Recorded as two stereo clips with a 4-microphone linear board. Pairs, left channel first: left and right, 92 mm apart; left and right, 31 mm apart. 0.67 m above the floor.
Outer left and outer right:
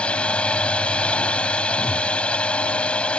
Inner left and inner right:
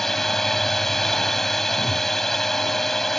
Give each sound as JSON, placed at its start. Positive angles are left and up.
{"t": 0.0, "sound": "a drone", "side_deg": 10}
{"t": 1.7, "sound": "a whoosh", "side_deg": -5}